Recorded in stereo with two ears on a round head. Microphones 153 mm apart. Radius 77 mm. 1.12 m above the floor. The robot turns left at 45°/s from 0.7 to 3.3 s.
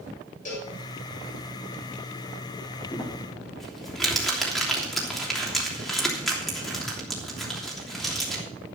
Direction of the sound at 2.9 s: 20° left (ahead or behind).